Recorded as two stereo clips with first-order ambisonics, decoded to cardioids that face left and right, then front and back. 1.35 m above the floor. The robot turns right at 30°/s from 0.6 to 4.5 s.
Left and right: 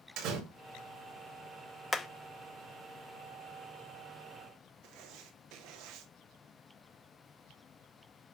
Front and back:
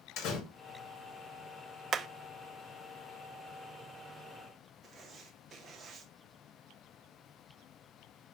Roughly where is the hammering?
Behind.